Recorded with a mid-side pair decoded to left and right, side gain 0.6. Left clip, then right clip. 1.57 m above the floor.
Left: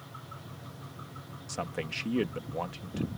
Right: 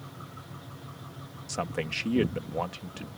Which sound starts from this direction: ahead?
A man speaking, at 1.5 s.